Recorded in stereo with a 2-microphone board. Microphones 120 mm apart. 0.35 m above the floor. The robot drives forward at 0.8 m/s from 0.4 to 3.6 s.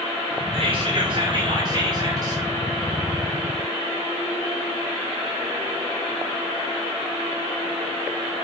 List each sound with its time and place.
0.5 s whispering: 50° right (ahead or behind), 2.5 m; by 2.4 s 35° right (ahead or behind), 3 m